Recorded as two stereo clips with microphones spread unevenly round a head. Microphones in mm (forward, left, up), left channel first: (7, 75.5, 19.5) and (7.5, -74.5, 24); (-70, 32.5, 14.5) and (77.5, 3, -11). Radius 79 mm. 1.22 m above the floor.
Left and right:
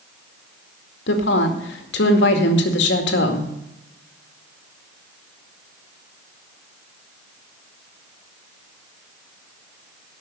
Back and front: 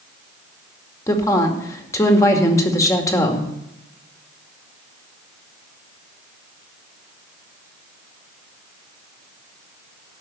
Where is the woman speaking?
95° left, 2 m.